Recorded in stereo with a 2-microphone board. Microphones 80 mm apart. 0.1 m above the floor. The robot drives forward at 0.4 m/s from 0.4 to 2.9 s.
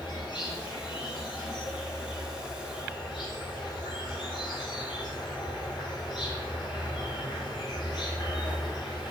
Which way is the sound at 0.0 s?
80° left.